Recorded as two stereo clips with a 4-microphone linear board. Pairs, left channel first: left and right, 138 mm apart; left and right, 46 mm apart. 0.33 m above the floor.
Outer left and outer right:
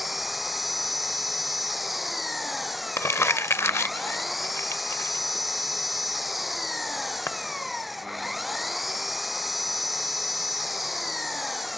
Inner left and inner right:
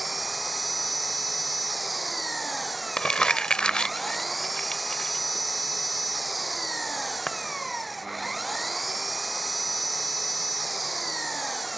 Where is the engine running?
Centre (ahead or behind).